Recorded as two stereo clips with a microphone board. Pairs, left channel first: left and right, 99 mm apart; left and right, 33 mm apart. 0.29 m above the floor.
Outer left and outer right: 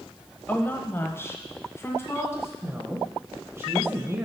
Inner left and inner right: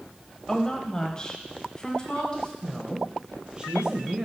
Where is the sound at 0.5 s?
20° left (ahead or behind), 0.9 m; by 2.5 s 25° left (ahead or behind), 2.5 m.